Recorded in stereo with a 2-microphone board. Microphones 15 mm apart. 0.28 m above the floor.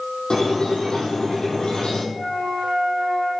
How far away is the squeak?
About 3.5 m.